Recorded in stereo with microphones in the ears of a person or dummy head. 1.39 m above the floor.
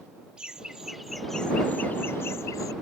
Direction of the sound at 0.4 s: Centre (ahead or behind).